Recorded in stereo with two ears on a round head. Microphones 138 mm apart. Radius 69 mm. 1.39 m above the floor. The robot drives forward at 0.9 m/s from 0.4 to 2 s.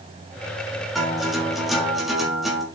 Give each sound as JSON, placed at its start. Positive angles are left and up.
{"t": 0.9, "sound": "a guitar", "side_deg": 0, "distance_m": 3.5}